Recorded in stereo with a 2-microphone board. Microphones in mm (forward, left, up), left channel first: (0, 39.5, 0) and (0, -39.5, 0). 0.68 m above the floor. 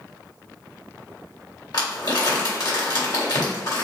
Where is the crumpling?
65° left (ahead or behind), 1.7 m.